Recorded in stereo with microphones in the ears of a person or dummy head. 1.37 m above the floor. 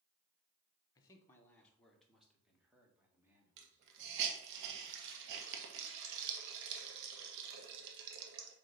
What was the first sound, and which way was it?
A man speaking, 20° left (ahead or behind).